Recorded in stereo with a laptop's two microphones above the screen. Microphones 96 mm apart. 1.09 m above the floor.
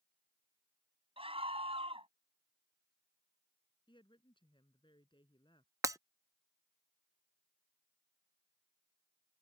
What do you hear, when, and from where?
1.2 s a scream: 85° right
3.9 s a woman speaking: 60° left (ahead or behind)
5.8 s breaking glass: 35° right (ahead or behind)